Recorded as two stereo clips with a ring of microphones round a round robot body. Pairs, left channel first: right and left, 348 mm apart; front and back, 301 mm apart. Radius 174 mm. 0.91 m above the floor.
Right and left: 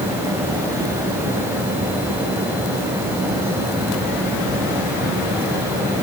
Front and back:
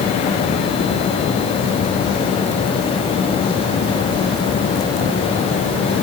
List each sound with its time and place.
Only background noise.